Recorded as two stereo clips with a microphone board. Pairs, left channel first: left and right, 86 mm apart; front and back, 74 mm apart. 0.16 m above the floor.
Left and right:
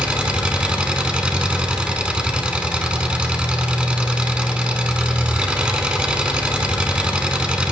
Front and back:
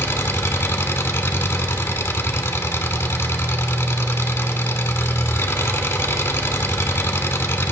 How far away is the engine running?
About 0.8 m.